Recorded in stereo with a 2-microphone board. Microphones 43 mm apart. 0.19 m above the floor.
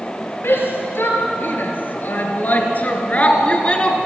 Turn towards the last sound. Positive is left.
turn(degrees=25)  # may be behind; listen again after turning